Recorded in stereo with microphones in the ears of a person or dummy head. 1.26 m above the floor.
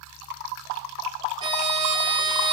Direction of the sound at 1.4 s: 25° right (ahead or behind).